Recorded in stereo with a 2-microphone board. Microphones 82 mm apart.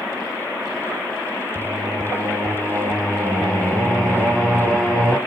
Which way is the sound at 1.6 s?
5° left (ahead or behind).